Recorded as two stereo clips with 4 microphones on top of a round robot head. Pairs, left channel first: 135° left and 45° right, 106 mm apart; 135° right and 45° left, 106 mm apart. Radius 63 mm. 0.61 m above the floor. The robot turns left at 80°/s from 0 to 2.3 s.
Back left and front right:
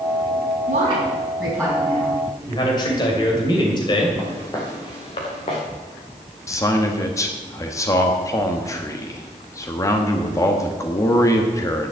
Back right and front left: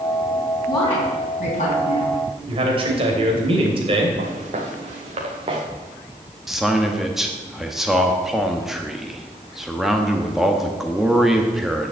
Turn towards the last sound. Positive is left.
turn(degrees=130)